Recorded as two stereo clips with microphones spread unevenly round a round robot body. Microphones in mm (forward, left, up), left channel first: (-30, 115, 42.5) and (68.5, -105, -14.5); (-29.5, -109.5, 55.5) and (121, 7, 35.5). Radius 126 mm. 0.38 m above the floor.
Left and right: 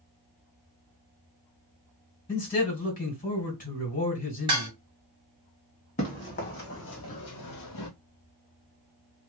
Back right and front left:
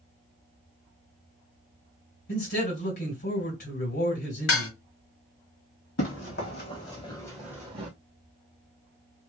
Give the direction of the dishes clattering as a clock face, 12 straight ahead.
4 o'clock.